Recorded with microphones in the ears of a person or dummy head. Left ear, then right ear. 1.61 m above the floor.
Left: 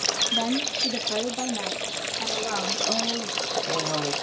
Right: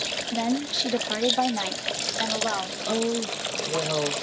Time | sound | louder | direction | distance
0.3 | a woman speaking | left 1 dB | 5° right (ahead or behind) | 1.2 m
2.9 | a woman speaking | even | 5° right (ahead or behind) | 2.0 m